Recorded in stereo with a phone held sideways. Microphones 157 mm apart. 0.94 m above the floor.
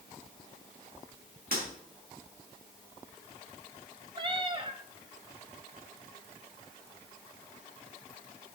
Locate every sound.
1.5 s breaking glass: 70° right (ahead or behind), 5 m
4.2 s a cat meowing: 35° right (ahead or behind), 0.8 m